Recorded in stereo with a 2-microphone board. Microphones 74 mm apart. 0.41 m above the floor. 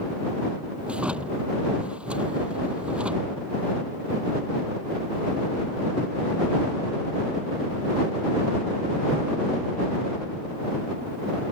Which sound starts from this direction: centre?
A drawer, at 0.9 s.